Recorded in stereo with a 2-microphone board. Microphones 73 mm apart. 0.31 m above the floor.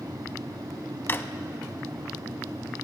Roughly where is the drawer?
Left.